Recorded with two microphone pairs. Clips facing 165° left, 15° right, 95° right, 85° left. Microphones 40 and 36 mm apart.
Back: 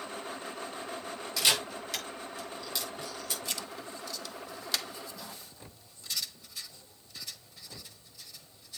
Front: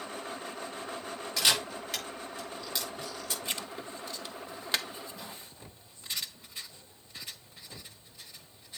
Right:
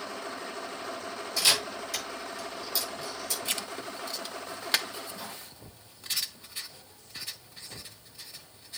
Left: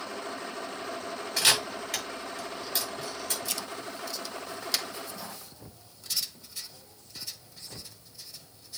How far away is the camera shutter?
About 5 m.